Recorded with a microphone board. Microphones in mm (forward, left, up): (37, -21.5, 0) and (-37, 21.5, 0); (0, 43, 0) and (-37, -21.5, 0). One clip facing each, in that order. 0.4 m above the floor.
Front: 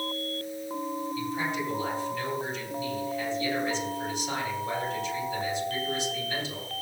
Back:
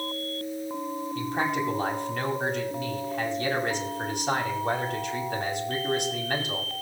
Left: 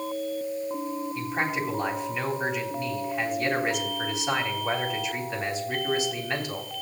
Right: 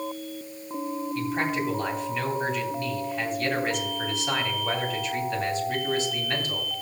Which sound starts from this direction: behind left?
A man speaking, at 1.1 s.